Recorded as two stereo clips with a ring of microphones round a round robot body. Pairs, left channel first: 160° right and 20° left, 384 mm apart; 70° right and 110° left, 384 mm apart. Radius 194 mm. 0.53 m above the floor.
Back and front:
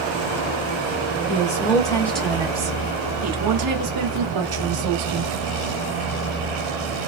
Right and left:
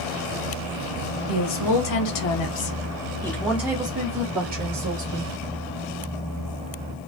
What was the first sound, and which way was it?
A woman speaking, 90° right.